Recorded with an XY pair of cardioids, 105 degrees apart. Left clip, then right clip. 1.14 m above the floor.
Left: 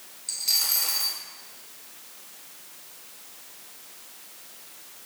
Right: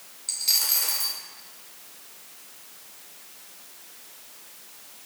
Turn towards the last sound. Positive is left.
turn(degrees=-20)